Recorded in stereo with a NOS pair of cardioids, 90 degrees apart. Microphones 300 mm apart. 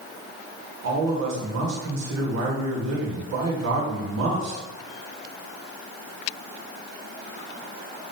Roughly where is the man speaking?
Ahead right.